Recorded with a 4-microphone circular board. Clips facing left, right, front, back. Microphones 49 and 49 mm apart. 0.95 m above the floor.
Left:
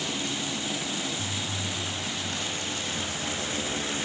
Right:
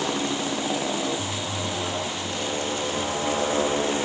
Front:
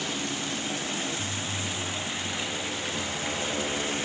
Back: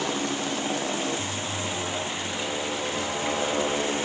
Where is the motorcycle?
130° right; by 4.1 s 120° right.